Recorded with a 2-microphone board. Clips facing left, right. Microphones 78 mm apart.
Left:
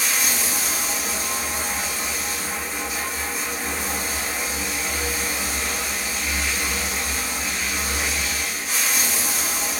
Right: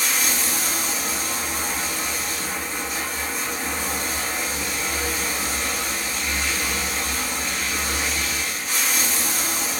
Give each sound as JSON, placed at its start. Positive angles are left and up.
{"t": 0.0, "sound": "running water", "side_deg": 0, "distance_m": 1.0}